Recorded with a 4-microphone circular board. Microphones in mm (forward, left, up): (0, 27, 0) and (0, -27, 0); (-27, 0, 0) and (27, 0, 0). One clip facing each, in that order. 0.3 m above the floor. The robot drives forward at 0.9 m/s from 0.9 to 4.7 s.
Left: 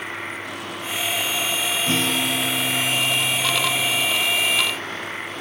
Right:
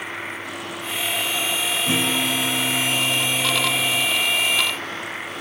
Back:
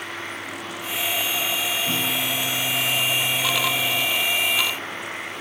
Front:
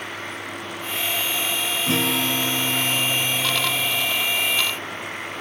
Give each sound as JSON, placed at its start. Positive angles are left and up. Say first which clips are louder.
{"t": 1.9, "sound": "a guitar", "louder": "right 1 dB, front 3 dB", "azimuth_deg": -20, "distance_m": 1.6}